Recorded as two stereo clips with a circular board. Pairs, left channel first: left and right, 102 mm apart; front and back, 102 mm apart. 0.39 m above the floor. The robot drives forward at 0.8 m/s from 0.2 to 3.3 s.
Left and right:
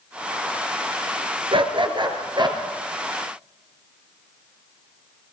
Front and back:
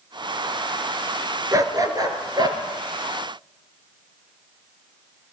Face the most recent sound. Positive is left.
turn(degrees=-145)